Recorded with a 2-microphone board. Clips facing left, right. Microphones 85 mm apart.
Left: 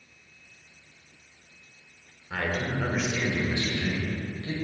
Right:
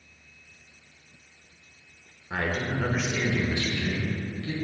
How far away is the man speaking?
About 1.1 m.